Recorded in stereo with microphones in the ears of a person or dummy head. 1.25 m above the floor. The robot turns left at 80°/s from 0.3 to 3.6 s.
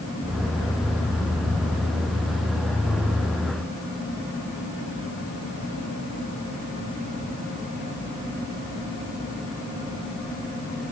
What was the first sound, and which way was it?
Only background noise.